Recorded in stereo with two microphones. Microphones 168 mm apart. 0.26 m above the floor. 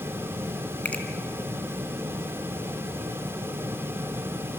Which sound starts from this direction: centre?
A finger snap, at 0.8 s.